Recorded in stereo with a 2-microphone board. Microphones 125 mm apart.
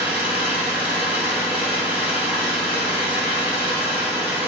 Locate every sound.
0.0 s an engine running: 15° right (ahead or behind), 1.8 m